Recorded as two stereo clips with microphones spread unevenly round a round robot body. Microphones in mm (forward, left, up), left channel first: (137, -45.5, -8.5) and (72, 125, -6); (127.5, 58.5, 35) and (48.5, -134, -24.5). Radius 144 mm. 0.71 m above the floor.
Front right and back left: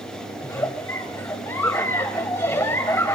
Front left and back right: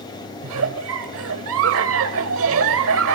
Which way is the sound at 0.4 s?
145° right.